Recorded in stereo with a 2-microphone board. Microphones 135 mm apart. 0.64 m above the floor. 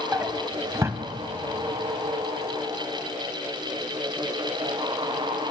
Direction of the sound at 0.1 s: 20° right (ahead or behind).